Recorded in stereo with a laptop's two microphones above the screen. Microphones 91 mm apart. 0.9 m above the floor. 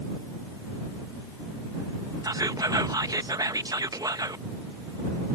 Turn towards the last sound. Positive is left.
turn(degrees=-45)  # may be behind; listen again after turning